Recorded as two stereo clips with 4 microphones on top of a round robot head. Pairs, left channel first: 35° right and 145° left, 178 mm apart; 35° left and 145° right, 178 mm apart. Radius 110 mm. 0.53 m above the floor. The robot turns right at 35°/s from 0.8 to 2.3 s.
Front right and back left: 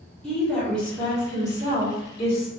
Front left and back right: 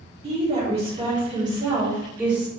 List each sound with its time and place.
0.2 s a woman speaking: 120° right, 1.5 m; by 2.5 s 65° right, 1.5 m